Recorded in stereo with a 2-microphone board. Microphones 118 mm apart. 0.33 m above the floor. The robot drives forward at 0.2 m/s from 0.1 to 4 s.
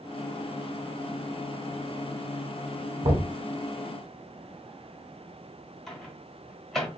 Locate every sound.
3.0 s knocking: 60° right (ahead or behind), 1.5 m
5.9 s a microwave: 5° left (ahead or behind), 1.3 m